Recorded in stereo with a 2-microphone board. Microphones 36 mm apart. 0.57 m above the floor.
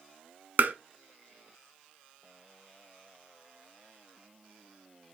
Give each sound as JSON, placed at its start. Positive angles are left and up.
{"t": 0.6, "sound": "tapping", "side_deg": -60, "distance_m": 0.8}